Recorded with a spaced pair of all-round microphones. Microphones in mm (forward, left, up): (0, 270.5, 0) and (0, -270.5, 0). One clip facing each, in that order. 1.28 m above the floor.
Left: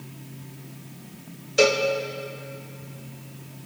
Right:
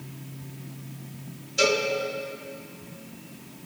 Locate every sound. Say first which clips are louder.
1.6 s a cowbell: left 4 dB; 75° left (ahead or behind), 0.9 m